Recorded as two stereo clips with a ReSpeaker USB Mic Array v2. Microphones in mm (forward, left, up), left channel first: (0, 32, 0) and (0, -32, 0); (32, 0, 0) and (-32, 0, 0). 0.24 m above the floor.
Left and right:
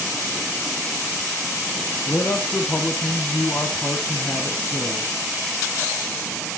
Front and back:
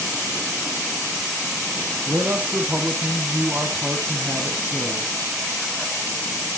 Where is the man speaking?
130° left, 1.3 m.